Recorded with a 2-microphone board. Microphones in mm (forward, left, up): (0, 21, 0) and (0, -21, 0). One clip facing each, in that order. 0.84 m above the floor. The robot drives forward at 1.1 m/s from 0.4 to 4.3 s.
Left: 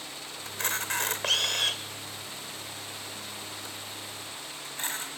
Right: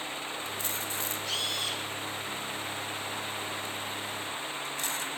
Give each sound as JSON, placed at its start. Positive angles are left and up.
{"t": 0.5, "sound": "a camera shutter", "side_deg": 65, "distance_m": 2.5}